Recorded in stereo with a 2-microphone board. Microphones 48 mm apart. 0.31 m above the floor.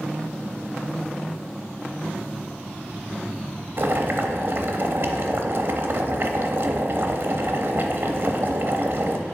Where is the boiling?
50° right (ahead or behind), 0.6 m.